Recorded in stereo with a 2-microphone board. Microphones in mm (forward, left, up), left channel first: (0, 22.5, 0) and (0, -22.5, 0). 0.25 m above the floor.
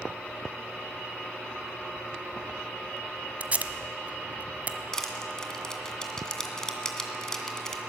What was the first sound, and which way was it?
Tape being pulled, 35° right (ahead or behind).